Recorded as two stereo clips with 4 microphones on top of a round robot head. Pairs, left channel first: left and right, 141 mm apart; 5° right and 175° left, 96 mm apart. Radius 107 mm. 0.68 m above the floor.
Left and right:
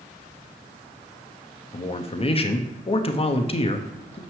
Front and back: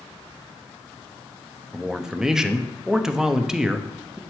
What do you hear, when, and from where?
1.7 s a man speaking: 95° left, 0.9 m